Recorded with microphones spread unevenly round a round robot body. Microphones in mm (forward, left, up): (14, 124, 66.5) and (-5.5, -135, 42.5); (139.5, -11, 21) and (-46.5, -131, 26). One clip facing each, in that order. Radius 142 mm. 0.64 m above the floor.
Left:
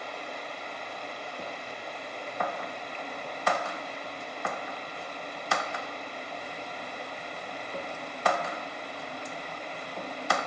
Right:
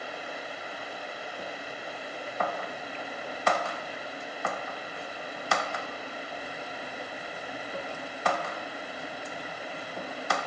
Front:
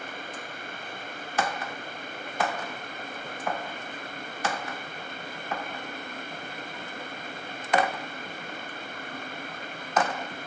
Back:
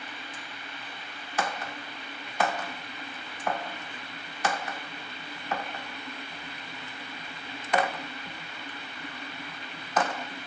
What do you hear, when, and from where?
0.0 s running water: 10° right